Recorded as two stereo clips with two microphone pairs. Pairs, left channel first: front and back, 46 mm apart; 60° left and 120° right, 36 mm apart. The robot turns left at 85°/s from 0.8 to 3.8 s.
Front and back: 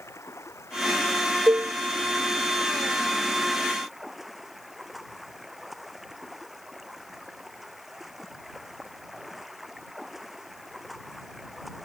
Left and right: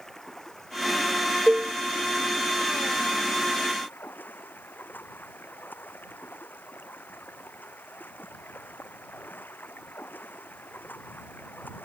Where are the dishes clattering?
175° left; by 1.7 s 150° left.